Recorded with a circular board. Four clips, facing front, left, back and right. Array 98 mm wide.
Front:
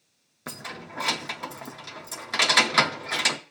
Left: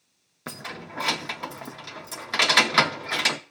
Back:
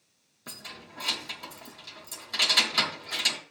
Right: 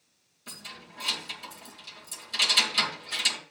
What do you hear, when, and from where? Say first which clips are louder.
0.5 s keys jangling: left 10 dB, front 8 dB; 60° left, 0.7 m